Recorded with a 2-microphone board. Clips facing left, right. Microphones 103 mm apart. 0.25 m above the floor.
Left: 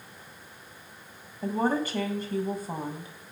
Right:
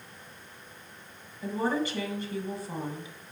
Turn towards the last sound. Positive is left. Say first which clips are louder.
# left 2 dB
turn(degrees=45)  # may be behind; listen again after turning